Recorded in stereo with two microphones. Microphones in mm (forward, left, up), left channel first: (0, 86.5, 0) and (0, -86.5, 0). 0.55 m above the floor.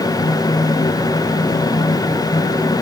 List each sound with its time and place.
Only background noise.